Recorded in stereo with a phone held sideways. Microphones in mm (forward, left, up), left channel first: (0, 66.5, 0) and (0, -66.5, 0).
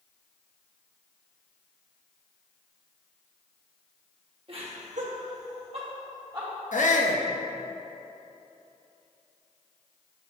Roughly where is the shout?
Left.